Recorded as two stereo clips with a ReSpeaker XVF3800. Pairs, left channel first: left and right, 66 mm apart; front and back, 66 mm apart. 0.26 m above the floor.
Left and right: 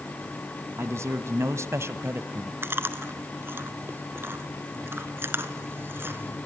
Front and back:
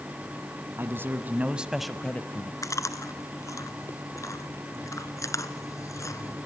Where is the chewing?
35° right, 1.3 m.